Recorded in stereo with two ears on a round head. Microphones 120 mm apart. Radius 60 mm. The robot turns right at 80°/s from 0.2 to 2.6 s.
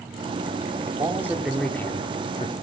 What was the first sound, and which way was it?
A man speaking, 55° right.